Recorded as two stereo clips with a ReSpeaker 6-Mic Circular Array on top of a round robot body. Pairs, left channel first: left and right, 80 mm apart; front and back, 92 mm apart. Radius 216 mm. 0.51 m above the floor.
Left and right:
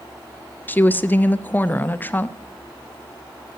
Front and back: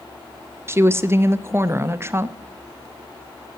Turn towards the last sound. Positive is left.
turn(degrees=140)